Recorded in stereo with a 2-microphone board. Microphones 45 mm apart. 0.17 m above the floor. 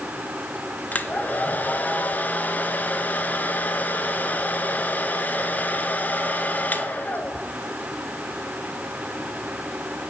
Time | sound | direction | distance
0.9 | a hair dryer | 40° left (ahead or behind) | 0.6 m